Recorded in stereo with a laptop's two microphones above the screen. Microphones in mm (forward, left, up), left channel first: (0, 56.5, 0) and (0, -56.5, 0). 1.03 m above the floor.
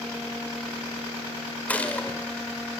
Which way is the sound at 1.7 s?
15° left (ahead or behind).